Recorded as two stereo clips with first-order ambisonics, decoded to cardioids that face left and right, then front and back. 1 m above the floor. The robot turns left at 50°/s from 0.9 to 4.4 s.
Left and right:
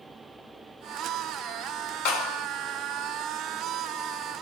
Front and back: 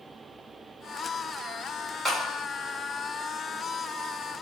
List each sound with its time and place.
2.0 s a clap: 95° left, 1.4 m; by 2.5 s 75° left, 1.4 m